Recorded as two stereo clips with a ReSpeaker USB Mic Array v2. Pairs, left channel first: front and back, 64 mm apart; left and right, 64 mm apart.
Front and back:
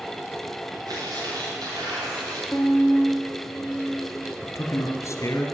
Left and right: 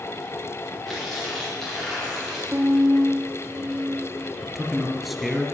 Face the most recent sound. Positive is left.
turn(degrees=-5)